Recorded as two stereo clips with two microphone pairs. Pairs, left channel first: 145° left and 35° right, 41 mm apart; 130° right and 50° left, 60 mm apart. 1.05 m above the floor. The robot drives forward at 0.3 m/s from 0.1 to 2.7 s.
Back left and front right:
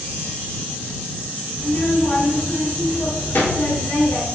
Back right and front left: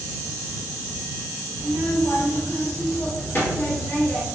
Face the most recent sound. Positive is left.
turn(degrees=175)